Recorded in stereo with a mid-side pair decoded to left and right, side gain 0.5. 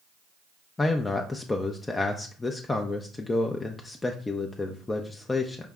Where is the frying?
No frying in this recording.